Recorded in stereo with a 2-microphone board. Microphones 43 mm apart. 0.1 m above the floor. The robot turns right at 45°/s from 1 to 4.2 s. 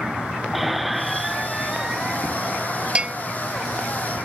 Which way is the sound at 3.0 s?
20° right (ahead or behind).